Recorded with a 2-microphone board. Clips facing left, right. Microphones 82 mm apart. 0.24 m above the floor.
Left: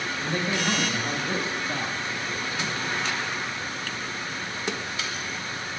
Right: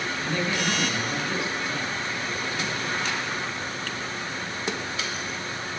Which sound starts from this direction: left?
A man speaking, at 0.2 s.